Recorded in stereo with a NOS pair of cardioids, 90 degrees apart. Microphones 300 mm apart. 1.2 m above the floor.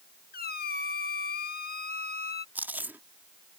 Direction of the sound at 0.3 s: 30° left.